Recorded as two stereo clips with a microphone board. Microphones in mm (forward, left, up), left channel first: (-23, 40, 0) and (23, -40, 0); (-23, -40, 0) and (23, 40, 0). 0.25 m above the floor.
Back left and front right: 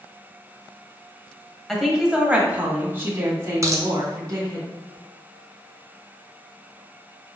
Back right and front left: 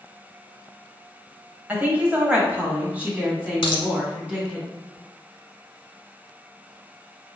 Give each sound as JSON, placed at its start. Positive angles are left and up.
{"t": 1.7, "sound": "a woman speaking", "azimuth_deg": 35, "distance_m": 1.0}
{"t": 3.6, "sound": "a dropped coin", "azimuth_deg": -115, "distance_m": 0.7}